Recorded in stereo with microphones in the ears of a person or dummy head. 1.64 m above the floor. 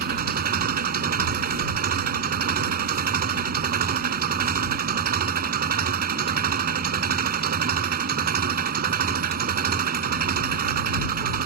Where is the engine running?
50° right (ahead or behind).